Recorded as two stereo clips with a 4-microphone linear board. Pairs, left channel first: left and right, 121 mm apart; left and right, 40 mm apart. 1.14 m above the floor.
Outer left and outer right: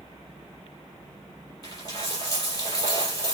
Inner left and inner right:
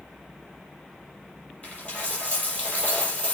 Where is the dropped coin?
30° left (ahead or behind), 5 m.